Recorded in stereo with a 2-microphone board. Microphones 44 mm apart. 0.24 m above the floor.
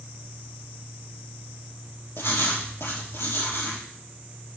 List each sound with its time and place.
2.2 s writing: 70° left (ahead or behind), 3.5 m